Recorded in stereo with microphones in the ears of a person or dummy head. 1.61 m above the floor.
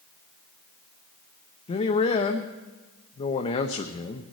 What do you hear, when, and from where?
1.7 s a man speaking: 35° left (ahead or behind), 0.8 m